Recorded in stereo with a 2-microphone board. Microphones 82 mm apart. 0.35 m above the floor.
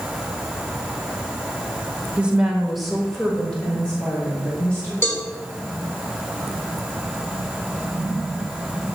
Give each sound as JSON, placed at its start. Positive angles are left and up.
{"t": 2.2, "sound": "a woman speaking", "side_deg": -15, "distance_m": 1.2}
{"t": 5.0, "sound": "a cowbell", "side_deg": 30, "distance_m": 1.6}